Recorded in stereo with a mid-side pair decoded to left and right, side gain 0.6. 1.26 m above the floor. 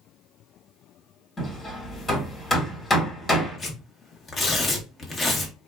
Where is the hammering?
20° left, 1.4 m.